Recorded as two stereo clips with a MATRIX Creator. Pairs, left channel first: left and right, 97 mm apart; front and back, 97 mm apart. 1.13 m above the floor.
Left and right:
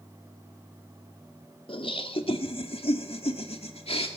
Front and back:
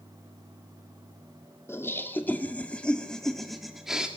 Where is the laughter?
65° left, 2.5 m; by 4.1 s 95° left, 2 m.